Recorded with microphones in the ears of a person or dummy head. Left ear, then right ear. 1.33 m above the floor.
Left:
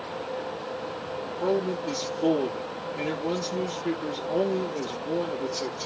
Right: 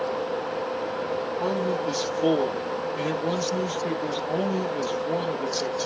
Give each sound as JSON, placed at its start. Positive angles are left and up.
{"t": 1.4, "sound": "a man speaking", "side_deg": -25, "distance_m": 0.7}